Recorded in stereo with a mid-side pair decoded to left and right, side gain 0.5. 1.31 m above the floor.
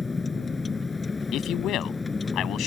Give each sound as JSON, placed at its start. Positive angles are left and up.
{"t": 0.0, "sound": "a vehicle", "azimuth_deg": 20}
{"t": 1.3, "sound": "a man speaking", "azimuth_deg": 65}